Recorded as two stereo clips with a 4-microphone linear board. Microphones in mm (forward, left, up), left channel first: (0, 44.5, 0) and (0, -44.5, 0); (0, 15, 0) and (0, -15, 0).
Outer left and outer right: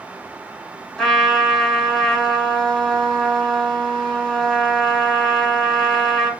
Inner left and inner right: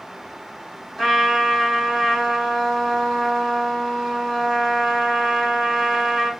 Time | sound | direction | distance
1.0 | a trumpet | 5° left (ahead or behind) | 1.0 m